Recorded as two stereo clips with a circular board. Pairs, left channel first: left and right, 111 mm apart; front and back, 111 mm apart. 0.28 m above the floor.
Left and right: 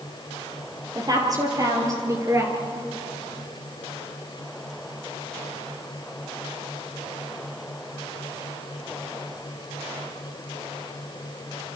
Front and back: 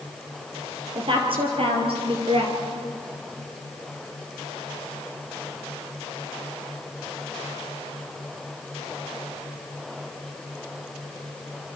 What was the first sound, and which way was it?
A woman speaking, 145° right.